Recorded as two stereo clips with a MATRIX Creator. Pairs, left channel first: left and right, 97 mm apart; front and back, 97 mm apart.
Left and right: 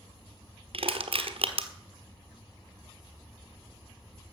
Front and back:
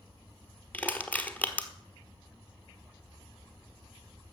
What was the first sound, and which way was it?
Crushing, 75° right.